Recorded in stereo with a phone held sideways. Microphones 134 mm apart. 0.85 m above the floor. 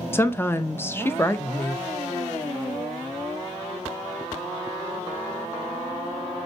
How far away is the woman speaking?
About 0.6 m.